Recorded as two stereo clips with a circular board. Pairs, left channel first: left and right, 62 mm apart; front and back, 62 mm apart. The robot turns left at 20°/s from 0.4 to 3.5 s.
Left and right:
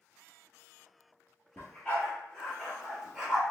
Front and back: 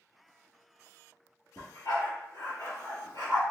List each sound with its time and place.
1.6 s a dog barking: 25° left, 1.5 m; by 3.4 s 10° right, 1.5 m